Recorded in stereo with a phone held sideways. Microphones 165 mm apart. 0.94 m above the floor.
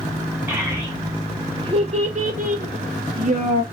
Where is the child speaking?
15° right (ahead or behind), 1.3 m; by 3.6 s 50° right (ahead or behind), 0.9 m.